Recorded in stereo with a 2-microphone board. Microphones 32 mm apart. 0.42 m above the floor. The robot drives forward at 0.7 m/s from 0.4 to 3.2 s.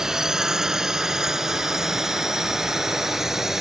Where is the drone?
15° right (ahead or behind); by 3.6 s 10° right (ahead or behind).